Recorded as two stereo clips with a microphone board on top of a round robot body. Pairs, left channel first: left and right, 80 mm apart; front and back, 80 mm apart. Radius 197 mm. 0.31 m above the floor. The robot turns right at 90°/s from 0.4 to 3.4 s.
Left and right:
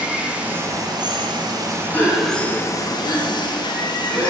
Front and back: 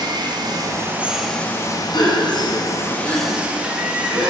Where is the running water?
165° right, 0.9 m; by 4.3 s 105° left, 0.9 m.